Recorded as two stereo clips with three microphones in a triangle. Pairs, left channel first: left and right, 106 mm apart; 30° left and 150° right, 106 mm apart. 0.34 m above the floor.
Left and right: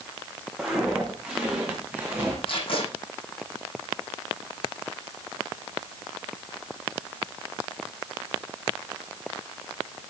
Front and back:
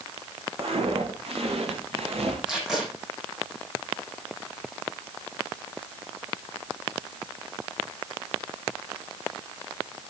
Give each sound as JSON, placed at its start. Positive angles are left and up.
{"t": 0.6, "sound": "footsteps", "azimuth_deg": -175, "distance_m": 8.5}
{"t": 2.5, "sound": "tape being pulled", "azimuth_deg": 125, "distance_m": 7.5}